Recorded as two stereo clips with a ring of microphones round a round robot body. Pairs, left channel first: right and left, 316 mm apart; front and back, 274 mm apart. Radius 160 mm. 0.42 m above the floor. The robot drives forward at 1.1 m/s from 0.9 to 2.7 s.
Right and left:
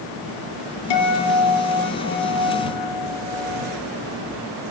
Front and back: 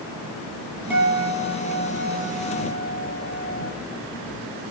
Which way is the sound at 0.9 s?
95° right.